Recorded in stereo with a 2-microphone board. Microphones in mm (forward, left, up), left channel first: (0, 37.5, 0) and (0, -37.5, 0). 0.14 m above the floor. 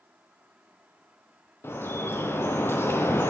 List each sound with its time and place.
1.6 s dripping: 30° left (ahead or behind), 2.5 m